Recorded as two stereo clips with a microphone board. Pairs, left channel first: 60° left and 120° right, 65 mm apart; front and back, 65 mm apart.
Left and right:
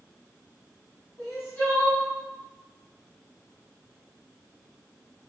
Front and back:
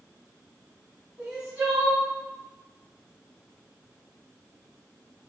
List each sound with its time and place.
1.2 s crying: 110° left, 1.9 m